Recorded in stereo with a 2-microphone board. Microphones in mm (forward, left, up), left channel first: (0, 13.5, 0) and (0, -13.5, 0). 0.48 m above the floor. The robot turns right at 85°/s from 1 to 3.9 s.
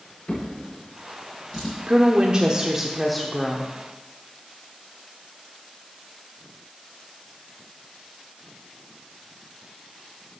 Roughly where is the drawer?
Left.